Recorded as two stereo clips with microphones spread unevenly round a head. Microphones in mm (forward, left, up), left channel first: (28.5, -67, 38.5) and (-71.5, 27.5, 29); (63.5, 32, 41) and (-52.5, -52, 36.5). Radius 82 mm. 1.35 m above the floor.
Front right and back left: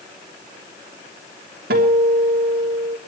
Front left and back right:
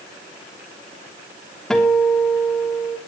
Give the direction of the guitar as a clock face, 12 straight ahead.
8 o'clock.